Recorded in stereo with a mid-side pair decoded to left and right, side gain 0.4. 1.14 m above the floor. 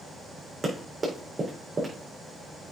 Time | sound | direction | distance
0.6 | running footsteps | 20° right | 4 m